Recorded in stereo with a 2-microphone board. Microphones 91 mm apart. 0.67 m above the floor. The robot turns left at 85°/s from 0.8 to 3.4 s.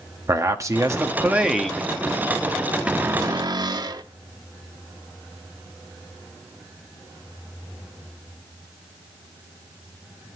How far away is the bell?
No bell in this recording.